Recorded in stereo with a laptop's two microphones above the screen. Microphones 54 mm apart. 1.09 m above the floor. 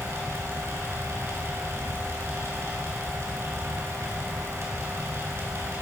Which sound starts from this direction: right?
A fan, at 0.0 s.